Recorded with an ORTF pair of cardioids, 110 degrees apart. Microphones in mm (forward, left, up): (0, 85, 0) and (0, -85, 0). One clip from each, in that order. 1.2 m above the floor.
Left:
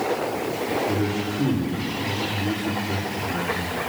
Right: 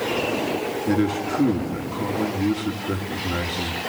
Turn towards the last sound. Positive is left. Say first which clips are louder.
# right 2 dB
turn(degrees=-60)